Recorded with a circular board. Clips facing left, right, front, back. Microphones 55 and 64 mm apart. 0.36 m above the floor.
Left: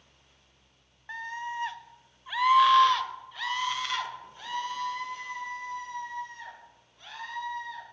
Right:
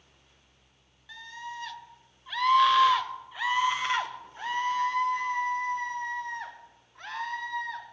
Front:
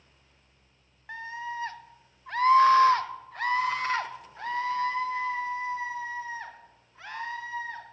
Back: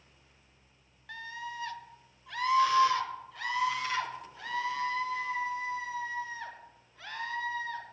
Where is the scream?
60° left, 1.2 m; by 7.8 s 60° right, 3 m.